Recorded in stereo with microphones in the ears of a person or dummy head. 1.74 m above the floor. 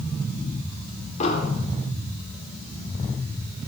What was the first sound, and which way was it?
An explosion, 45° left (ahead or behind).